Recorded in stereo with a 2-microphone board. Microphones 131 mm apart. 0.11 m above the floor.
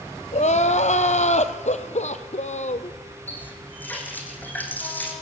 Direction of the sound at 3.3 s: 15° left (ahead or behind).